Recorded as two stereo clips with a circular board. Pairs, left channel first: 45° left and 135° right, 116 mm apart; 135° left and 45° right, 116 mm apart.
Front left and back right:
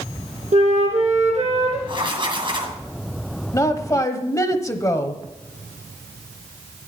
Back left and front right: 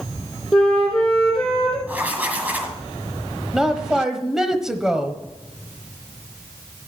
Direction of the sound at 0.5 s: 140° right.